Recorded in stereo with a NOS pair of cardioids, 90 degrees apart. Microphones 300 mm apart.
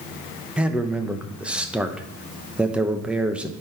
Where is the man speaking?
5° right, 1.0 m.